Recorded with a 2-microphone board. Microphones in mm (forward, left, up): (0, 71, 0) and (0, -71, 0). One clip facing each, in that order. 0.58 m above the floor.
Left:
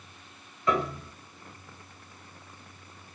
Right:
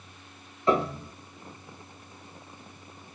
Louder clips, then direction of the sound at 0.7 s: Right 3 dB; 30° right (ahead or behind).